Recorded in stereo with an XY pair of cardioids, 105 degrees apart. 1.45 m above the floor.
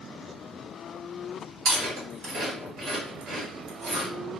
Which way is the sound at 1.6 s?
60° right.